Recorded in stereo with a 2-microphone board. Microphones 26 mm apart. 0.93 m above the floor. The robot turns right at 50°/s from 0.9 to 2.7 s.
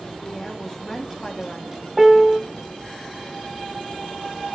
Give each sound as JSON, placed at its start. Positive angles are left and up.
{"t": 0.2, "sound": "a woman speaking", "azimuth_deg": 15, "distance_m": 1.5}
{"t": 2.0, "sound": "a piano", "side_deg": -5, "distance_m": 0.6}